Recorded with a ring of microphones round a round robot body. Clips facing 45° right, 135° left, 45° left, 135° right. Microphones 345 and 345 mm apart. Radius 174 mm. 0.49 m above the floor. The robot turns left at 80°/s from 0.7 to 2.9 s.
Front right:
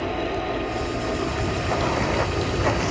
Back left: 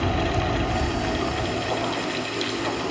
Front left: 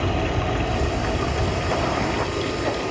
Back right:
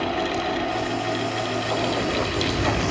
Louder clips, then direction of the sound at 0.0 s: Back left 1 dB, front left 1 dB; 85° left.